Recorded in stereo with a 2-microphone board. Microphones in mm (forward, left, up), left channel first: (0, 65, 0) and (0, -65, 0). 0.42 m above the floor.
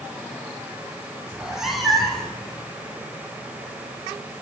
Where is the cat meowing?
10° right (ahead or behind), 1.5 m; by 2.4 s 5° left (ahead or behind), 1.9 m.